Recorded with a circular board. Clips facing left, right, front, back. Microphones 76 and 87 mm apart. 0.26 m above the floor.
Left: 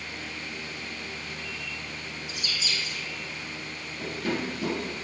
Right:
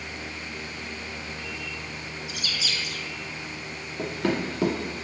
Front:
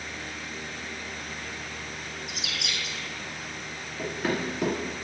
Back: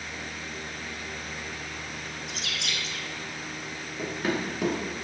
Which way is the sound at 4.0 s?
95° right.